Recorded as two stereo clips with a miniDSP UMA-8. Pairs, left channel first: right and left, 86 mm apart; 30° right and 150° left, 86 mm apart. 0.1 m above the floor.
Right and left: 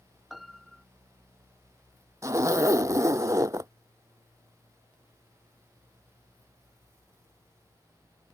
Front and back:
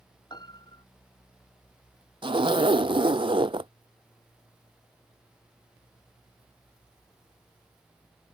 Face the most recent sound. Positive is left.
turn(degrees=145)